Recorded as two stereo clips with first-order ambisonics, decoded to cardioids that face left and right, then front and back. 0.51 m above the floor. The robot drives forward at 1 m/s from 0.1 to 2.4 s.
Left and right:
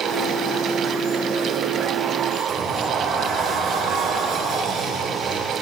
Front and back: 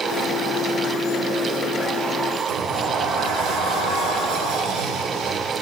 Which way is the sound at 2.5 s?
165° right.